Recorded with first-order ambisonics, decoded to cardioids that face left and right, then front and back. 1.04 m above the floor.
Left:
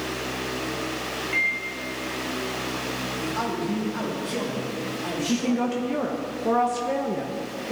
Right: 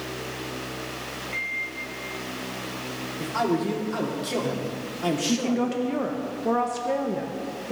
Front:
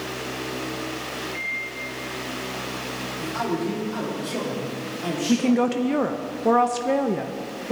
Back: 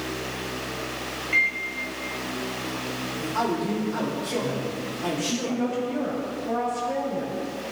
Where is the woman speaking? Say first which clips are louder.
Even, front 5 dB; straight ahead, 0.6 m.